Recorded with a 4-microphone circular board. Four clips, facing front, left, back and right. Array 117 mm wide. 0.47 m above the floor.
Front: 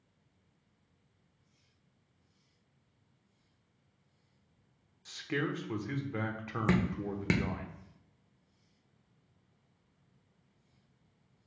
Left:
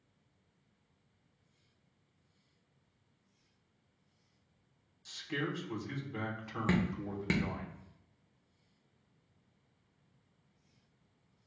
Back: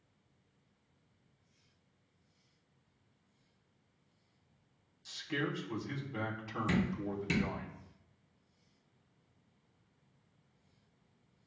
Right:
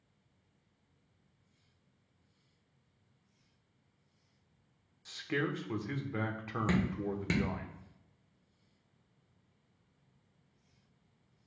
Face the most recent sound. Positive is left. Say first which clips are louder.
# even, front 3 dB
turn(degrees=10)